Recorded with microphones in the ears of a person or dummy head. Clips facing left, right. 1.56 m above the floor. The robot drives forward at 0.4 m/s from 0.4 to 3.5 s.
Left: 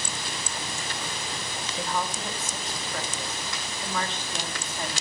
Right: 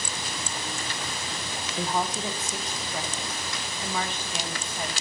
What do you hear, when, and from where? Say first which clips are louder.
1.8 s a woman speaking: right 3 dB; 20° right (ahead or behind), 0.9 m; by 5.0 s 10° right (ahead or behind), 1.6 m